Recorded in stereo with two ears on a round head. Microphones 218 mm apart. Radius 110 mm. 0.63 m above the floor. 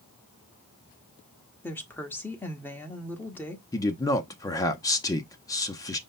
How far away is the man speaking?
About 0.6 m.